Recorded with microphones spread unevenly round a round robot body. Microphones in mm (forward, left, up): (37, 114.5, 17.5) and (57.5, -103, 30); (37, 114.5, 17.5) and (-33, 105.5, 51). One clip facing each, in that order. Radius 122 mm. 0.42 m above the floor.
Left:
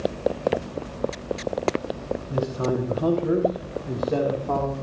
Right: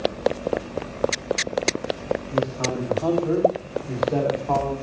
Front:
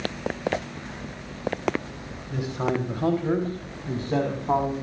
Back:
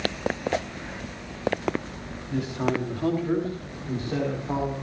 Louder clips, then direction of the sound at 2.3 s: Left 3 dB, even; 60° left.